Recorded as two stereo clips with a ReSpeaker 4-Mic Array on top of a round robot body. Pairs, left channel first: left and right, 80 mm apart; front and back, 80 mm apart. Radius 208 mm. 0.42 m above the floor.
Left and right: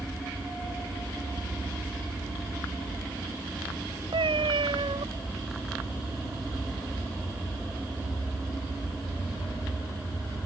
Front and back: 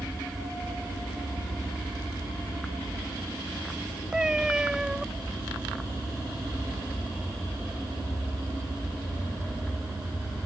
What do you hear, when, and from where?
4.1 s a cat meowing: 100° right